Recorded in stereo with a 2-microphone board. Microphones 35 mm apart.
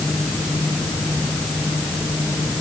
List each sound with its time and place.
Only background noise.